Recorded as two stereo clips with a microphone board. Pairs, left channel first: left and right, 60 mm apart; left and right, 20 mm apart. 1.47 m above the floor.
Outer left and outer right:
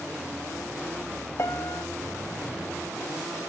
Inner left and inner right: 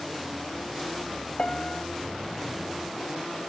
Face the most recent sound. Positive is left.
turn(degrees=45)  # may be behind; listen again after turning